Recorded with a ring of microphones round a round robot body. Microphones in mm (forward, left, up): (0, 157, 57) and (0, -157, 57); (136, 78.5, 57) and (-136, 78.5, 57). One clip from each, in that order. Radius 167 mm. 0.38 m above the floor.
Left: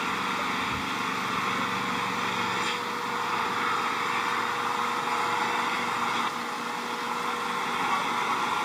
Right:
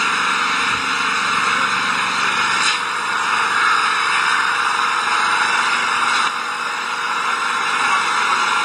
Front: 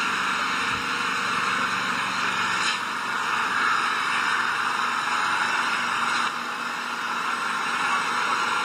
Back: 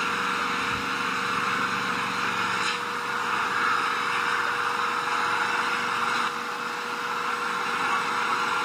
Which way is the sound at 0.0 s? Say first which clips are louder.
Right 11 dB, front 2 dB; 75° right.